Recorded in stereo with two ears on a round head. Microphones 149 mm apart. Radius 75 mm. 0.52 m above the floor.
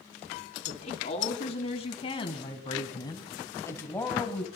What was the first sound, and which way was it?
A woman speaking, 45° left (ahead or behind).